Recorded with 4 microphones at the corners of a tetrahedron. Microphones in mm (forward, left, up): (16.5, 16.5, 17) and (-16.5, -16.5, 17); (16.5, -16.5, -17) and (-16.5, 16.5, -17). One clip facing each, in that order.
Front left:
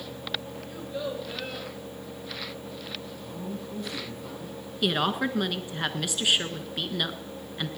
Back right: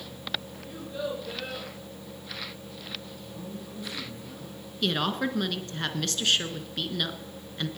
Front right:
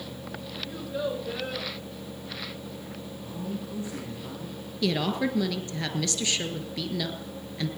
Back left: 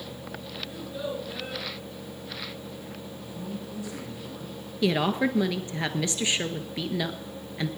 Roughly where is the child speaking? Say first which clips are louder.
Back right 1 dB, front right 4 dB; ahead right.